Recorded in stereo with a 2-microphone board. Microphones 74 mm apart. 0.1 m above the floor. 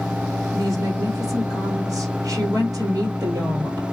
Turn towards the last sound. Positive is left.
turn(degrees=-50)  # may be behind; listen again after turning